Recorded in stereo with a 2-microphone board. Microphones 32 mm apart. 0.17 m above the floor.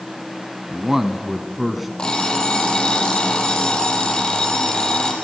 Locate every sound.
0.7 s a man speaking: 15° right (ahead or behind), 1.3 m; by 1.9 s 5° right (ahead or behind), 1.5 m
2.0 s an alarm clock: 25° left (ahead or behind), 3.5 m